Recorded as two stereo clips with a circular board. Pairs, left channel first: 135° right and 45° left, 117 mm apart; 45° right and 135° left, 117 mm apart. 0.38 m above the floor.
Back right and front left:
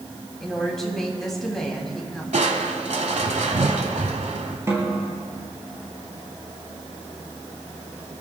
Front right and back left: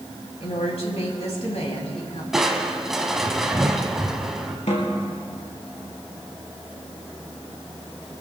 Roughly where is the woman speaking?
Ahead right.